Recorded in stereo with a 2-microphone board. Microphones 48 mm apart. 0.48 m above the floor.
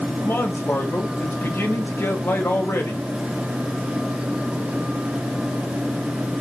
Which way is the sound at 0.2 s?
65° left (ahead or behind).